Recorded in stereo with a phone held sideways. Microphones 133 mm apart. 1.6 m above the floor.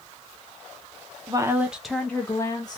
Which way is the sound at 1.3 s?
30° right (ahead or behind).